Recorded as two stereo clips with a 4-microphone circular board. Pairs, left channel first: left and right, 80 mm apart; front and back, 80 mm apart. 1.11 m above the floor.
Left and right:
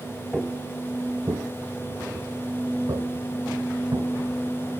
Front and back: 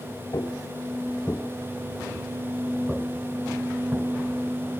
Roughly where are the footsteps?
Ahead.